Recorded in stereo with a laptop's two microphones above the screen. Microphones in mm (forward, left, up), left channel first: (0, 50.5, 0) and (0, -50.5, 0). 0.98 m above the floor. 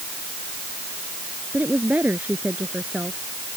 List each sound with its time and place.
1.5 s a woman speaking: 15° right (ahead or behind)